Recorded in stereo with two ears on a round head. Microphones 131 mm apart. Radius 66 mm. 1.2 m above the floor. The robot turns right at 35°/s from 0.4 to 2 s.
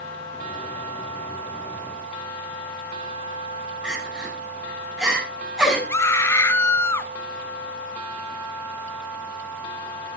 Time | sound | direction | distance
3.8 | crying | 5° right (ahead or behind) | 7 m
5.9 | a scream | 15° left (ahead or behind) | 1.1 m